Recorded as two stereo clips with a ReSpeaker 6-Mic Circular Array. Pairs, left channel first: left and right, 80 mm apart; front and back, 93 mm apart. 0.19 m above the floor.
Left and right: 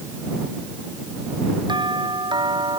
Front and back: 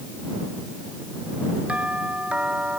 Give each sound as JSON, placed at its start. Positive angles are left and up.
{"t": 1.7, "sound": "a doorbell", "azimuth_deg": -105}